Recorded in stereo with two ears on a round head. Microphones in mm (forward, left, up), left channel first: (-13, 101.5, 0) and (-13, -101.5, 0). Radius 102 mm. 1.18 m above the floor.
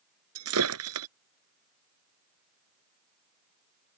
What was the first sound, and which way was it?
Breaking glass, 75° right (ahead or behind).